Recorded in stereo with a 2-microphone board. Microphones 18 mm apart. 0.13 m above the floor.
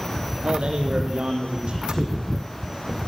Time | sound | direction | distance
0.4 | a man speaking | 70° right (ahead or behind) | 4 m